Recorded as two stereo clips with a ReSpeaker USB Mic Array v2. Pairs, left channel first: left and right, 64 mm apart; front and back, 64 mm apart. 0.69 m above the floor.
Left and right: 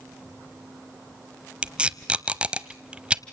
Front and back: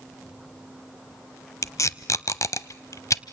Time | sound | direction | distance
1.6 | tape being pulled | 20° right | 0.8 m